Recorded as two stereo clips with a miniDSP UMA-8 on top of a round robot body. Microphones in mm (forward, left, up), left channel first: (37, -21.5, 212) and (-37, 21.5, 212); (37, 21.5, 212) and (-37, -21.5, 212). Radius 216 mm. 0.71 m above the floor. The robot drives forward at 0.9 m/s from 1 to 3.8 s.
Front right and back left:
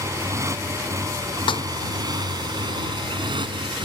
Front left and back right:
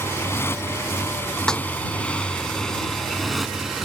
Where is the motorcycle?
95° left; by 3.9 s 125° left.